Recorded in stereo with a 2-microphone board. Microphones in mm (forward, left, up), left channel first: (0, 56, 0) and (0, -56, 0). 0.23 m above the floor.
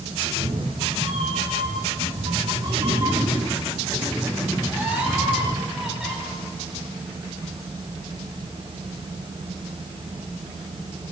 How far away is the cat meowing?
About 2.5 m.